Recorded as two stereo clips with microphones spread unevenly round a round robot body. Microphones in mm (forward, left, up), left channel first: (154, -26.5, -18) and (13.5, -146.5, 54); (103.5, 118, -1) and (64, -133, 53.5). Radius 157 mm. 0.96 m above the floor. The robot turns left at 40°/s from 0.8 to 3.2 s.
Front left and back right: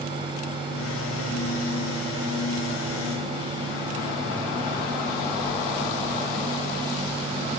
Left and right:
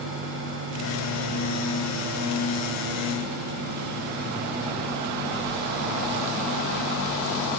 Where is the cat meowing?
I don't hear a cat meowing.